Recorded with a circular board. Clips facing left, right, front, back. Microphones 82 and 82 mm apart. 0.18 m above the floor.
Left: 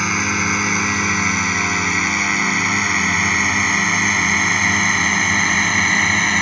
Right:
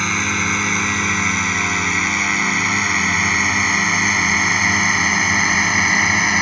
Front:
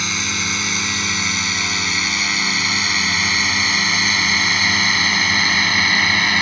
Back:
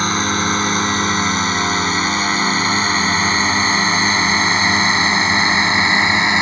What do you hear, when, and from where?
0.0 s a drone: 175° left; by 6.4 s 160° right